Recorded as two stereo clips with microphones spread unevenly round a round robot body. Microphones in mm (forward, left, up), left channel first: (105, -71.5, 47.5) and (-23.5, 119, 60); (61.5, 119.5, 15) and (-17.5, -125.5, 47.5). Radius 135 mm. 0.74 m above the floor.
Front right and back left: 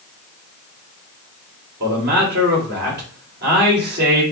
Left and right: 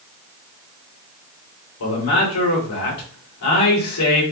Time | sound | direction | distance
1.8 | a man speaking | 80° left | 3 m